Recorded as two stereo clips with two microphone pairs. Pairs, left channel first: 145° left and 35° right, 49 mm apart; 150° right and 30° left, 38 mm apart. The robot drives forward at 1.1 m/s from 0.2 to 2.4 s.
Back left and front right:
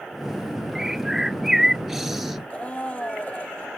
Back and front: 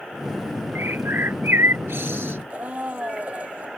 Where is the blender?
80° left.